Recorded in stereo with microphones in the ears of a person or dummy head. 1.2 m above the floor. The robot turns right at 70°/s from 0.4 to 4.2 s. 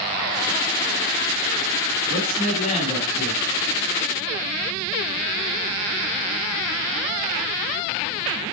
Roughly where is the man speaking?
Left.